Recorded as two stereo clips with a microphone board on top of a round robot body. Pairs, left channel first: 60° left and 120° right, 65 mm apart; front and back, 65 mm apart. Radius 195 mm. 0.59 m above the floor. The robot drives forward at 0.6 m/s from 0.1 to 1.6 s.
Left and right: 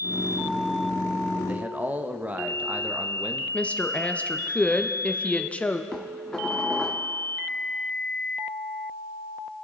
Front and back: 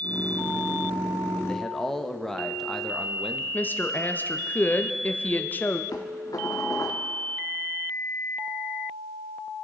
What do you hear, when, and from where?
1.5 s a man speaking: 70° right, 1.1 m; by 3.4 s 80° right, 1.1 m
3.5 s a woman speaking: 15° left, 1.1 m
5.9 s dishes clattering: 20° right, 1.3 m